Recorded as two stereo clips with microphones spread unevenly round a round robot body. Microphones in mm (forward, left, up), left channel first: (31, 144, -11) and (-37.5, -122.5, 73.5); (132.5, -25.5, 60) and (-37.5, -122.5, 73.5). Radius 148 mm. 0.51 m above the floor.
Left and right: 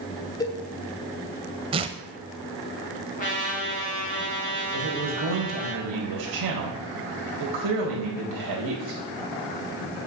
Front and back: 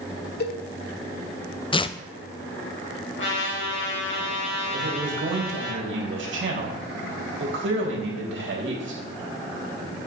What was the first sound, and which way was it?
A cowbell, 10° left.